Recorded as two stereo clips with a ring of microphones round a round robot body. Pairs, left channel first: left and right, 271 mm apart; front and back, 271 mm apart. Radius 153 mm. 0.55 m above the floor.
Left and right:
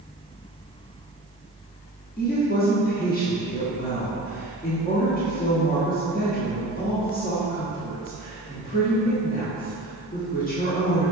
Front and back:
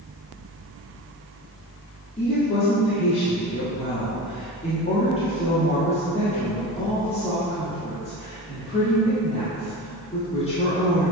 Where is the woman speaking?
55° left, 1.4 m.